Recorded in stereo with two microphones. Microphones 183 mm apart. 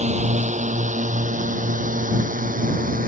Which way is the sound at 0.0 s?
40° right (ahead or behind).